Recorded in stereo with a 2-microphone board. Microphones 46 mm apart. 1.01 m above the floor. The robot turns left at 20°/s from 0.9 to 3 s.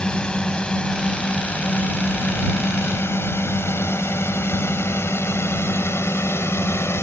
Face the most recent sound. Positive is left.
turn(degrees=80)